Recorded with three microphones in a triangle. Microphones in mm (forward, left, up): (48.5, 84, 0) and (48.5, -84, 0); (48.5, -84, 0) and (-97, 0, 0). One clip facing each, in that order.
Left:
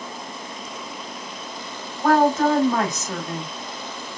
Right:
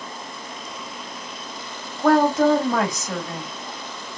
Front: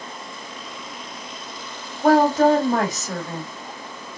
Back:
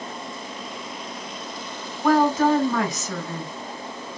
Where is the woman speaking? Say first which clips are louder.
Right 1 dB, front 3 dB; 35° right, 2.5 m.